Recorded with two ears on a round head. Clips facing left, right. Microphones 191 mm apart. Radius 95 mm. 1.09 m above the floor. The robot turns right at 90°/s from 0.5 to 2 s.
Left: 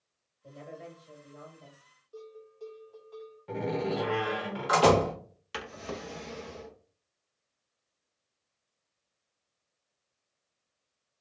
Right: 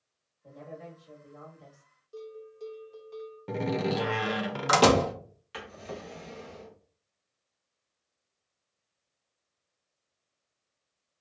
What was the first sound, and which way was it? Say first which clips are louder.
A woman speaking: right 1 dB; 145° left.